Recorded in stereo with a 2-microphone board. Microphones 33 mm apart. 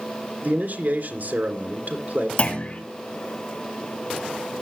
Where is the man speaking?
70° right (ahead or behind), 3 m.